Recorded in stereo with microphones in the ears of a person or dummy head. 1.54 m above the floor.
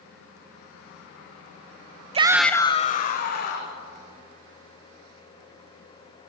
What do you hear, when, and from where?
2.1 s a shout: 40° right (ahead or behind), 0.7 m; by 3.8 s 55° left (ahead or behind), 2.0 m